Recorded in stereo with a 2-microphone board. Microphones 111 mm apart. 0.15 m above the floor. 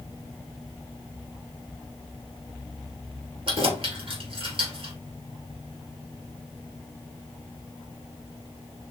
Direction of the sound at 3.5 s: 55° right (ahead or behind).